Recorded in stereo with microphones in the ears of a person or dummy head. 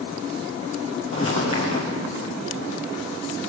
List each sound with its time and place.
1.1 s footsteps: 40° left (ahead or behind), 2.5 m